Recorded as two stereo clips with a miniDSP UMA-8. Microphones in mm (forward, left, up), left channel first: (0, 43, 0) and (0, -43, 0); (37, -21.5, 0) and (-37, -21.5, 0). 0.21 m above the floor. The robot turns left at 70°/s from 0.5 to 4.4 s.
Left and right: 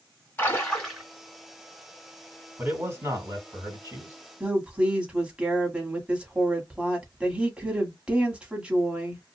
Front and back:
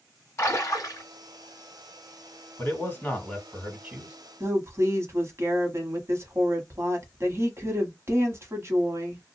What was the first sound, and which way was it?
A splash, 35° left.